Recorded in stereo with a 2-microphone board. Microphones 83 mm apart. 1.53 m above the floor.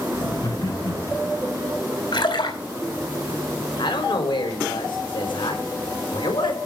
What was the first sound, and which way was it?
Laughter, 65° left (ahead or behind).